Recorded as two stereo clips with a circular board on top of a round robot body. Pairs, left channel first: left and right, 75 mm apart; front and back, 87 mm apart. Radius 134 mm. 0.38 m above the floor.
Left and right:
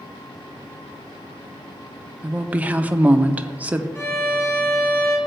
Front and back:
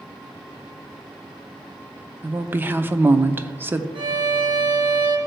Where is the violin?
145° left, 1.2 m.